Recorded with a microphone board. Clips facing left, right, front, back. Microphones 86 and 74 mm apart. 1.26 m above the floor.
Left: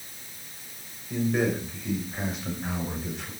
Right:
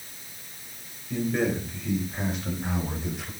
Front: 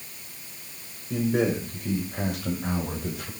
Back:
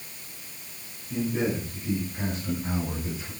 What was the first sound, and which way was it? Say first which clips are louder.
A man speaking: even, front 3 dB; 10° left.